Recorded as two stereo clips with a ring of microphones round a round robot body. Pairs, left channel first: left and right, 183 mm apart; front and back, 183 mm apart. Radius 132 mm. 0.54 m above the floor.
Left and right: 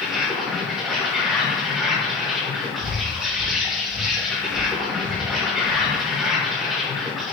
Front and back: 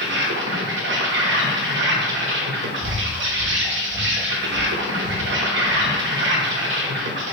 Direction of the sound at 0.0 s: Straight behind.